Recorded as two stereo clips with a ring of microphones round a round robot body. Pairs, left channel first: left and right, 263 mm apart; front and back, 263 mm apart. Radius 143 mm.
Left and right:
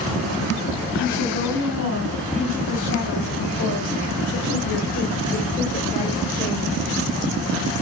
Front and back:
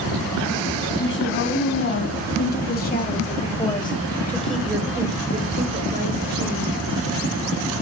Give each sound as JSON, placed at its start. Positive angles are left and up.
{"t": 1.0, "sound": "a woman speaking", "azimuth_deg": 40, "distance_m": 3.0}